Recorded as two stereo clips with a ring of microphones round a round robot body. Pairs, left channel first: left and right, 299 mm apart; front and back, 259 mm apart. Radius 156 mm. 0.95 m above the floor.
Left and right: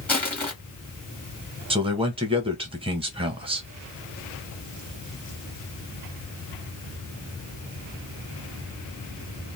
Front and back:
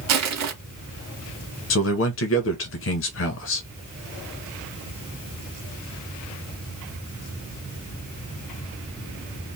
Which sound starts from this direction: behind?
Crushing, at 0.1 s.